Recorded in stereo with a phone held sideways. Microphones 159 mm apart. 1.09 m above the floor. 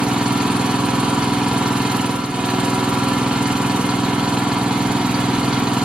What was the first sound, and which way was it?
An engine running, 5° right (ahead or behind).